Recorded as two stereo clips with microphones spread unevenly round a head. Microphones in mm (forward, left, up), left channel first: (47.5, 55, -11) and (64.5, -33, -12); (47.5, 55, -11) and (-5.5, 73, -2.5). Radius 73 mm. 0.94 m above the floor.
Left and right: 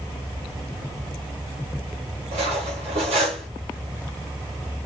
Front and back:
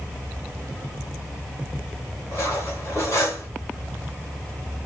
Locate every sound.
2.3 s cutlery clinking: 90° right, 1.9 m